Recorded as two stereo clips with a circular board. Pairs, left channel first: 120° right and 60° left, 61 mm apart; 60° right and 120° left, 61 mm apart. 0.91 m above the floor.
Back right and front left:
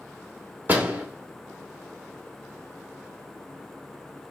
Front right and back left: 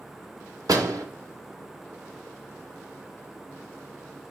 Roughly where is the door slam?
Behind left.